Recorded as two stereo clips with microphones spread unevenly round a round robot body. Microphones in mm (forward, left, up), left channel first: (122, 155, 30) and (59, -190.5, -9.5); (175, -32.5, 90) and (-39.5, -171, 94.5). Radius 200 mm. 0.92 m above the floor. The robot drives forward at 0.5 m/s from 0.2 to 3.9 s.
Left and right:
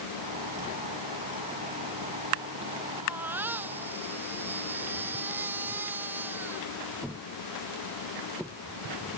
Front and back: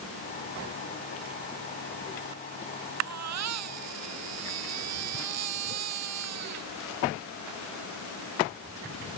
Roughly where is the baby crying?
Behind.